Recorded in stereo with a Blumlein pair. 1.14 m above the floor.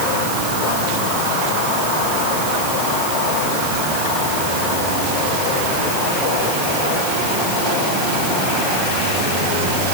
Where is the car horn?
No car horn in this recording.